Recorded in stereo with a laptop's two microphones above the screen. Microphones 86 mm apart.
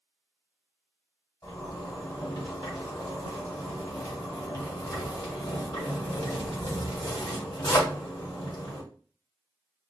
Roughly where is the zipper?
Left.